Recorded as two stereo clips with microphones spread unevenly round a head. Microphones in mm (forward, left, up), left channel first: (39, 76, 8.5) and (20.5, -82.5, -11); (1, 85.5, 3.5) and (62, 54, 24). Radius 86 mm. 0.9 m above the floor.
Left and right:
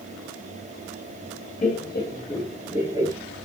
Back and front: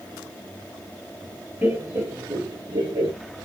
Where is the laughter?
40° left, 1.1 m; by 3.1 s 45° right, 1.1 m.